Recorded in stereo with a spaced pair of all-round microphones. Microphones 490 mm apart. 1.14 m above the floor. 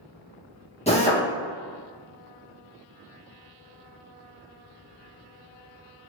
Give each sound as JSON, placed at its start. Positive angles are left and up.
{"t": 0.9, "sound": "a drill", "side_deg": 15, "distance_m": 1.2}